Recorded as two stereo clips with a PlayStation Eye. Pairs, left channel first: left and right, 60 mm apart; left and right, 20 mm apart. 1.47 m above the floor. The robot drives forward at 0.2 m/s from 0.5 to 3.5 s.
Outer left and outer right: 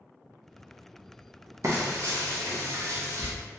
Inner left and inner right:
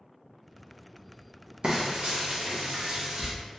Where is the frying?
55° right (ahead or behind), 0.8 m; by 3.3 s 50° right (ahead or behind), 0.8 m.